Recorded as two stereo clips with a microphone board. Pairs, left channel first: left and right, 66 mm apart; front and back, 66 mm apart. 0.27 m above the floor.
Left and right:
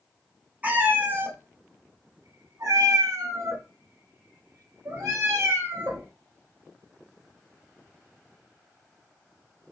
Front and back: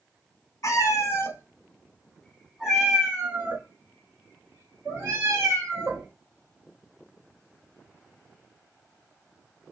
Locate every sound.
0.6 s a cat meowing: 25° right, 1.1 m; by 6.1 s 135° right, 2.5 m